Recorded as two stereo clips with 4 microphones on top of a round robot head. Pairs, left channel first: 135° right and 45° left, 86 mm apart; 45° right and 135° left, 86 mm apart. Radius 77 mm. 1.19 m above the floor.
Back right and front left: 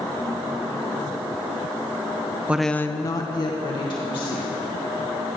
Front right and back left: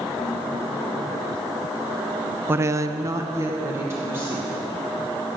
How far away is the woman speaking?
About 0.6 m.